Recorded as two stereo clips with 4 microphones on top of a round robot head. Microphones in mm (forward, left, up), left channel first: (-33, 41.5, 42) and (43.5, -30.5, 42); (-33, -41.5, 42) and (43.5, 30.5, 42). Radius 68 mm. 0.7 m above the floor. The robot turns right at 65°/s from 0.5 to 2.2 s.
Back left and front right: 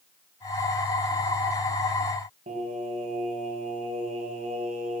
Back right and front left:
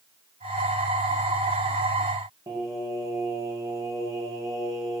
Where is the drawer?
I don't hear a drawer.